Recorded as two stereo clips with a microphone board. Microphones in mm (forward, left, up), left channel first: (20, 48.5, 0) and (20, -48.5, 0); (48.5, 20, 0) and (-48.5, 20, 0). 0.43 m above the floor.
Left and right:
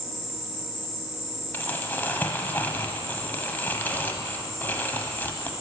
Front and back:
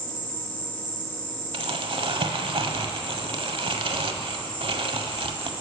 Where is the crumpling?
160° left, 0.8 m.